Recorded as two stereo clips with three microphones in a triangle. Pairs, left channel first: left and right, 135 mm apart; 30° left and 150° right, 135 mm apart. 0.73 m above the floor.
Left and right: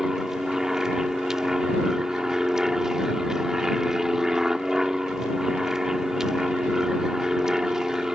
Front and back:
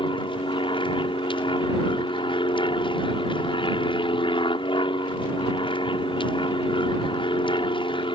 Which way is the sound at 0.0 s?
5° right.